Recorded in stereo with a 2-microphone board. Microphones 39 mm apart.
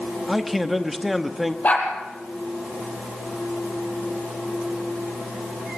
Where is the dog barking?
45° left (ahead or behind), 5.5 m.